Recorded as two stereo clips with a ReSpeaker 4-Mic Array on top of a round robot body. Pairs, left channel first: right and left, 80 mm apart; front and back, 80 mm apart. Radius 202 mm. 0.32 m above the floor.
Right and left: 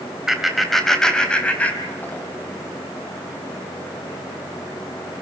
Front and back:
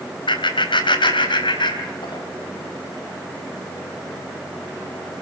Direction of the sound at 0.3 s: 5° left.